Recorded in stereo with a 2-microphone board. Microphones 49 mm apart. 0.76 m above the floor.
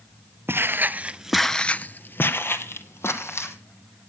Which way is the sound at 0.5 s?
55° right (ahead or behind).